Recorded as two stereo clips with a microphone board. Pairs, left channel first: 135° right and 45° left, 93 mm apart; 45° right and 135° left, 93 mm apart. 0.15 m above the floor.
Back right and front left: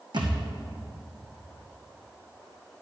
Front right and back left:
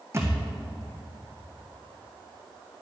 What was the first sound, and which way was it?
A thud, 75° left.